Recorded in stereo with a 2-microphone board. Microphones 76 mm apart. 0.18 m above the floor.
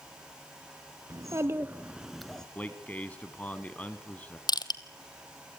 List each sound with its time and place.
1.1 s a child speaking: 50° right (ahead or behind), 1.5 m; by 2.5 s 10° left (ahead or behind), 1.5 m
2.5 s a man speaking: 20° left (ahead or behind), 1.3 m
4.5 s crushing: 65° left (ahead or behind), 1.1 m